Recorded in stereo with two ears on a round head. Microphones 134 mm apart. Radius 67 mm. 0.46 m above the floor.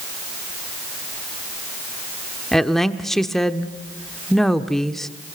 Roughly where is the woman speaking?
Centre.